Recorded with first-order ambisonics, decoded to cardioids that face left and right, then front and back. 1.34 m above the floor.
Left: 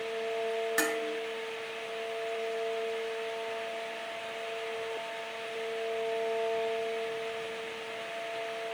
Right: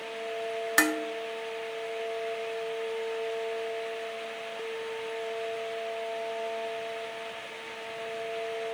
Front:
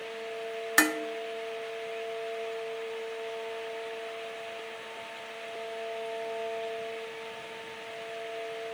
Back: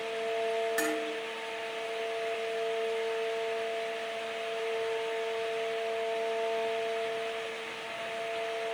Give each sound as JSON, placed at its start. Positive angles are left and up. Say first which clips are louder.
{"t": 0.8, "sound": "dishes clattering", "louder": "right 7 dB, front 6 dB", "azimuth_deg": -35, "distance_m": 1.0}